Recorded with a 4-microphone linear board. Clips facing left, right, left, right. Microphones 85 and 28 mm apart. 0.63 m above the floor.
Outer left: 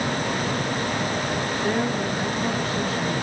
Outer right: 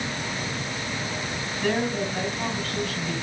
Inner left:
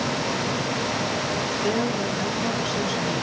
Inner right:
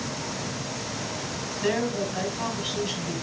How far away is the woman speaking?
About 5.5 m.